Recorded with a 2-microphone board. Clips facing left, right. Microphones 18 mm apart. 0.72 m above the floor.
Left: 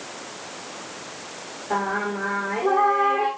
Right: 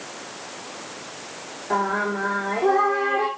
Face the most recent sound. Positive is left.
turn(degrees=-60)  # may be behind; listen again after turning